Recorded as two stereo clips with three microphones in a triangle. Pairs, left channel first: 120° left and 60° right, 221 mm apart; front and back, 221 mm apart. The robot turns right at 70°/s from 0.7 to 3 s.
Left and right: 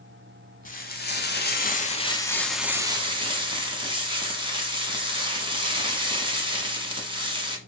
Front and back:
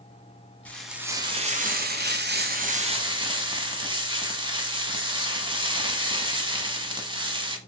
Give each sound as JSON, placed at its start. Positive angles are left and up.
{"t": 0.7, "sound": "frying", "azimuth_deg": 80, "distance_m": 0.8}